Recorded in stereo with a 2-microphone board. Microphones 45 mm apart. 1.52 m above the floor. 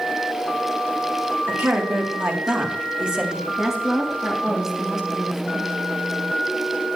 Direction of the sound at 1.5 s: 50° right (ahead or behind).